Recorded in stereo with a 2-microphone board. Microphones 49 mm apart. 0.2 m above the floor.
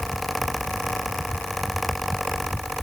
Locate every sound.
Only background noise.